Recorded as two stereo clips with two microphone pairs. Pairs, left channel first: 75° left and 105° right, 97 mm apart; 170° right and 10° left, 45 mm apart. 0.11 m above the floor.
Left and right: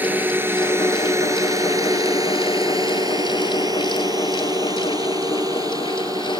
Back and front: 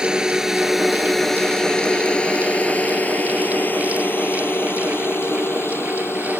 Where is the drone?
50° right; by 6.4 s 155° right.